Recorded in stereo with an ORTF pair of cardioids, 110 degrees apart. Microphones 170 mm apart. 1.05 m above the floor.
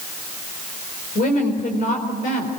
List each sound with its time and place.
1.1 s a woman speaking: 55° left, 4.5 m